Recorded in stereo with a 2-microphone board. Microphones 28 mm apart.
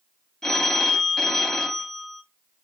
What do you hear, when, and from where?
0.4 s a phone ringing: 20° left (ahead or behind), 0.7 m